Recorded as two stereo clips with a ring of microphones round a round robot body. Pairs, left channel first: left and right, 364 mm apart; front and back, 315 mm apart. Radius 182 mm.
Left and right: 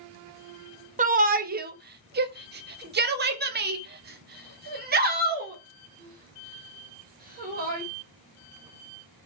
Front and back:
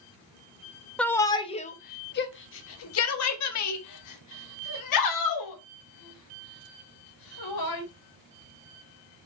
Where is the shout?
80° right, 1.0 m; by 7.8 s 25° right, 4 m.